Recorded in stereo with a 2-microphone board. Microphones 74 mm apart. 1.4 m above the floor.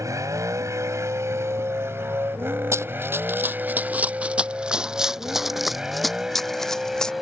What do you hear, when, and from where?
0.0 s a vehicle: 50° right (ahead or behind); by 7.2 s centre (ahead or behind)
2.7 s running footsteps: 35° right (ahead or behind); by 7.1 s 10° left (ahead or behind)